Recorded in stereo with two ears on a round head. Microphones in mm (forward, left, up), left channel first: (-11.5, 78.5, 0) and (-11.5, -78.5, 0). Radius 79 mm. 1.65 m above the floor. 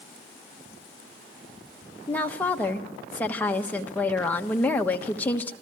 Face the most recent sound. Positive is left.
turn(degrees=10)  # may be behind; listen again after turning